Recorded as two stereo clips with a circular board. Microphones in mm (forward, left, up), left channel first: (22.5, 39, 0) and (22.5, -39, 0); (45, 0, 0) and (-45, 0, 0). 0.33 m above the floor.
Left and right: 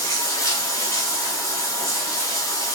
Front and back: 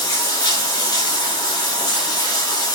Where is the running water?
45° left, 1.2 m.